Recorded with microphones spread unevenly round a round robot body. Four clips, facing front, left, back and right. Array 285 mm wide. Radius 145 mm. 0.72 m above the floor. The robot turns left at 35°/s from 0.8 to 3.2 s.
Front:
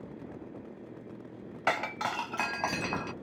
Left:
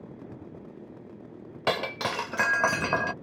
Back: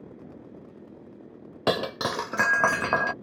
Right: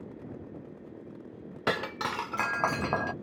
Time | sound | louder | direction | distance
1.7 | breaking glass | left 3 dB, back 5 dB | 165° right | ?